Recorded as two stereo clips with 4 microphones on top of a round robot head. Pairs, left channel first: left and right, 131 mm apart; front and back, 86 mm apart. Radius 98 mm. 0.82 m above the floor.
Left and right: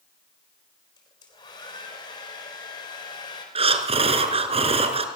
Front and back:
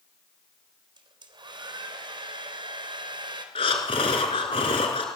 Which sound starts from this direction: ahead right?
Breathing, at 3.5 s.